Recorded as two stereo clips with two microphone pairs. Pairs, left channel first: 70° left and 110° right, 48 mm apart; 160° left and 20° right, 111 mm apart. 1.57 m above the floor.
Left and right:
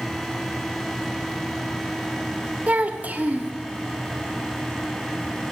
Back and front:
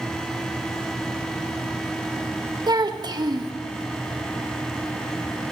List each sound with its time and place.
2.7 s a child speaking: 60° right, 1.2 m